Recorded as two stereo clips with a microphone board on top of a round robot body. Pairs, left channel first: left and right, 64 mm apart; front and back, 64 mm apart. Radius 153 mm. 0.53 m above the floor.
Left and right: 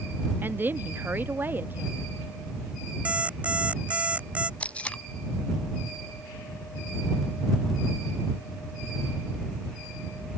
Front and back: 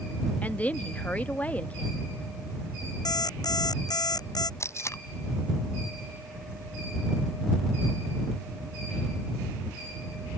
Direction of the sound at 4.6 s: 25° left.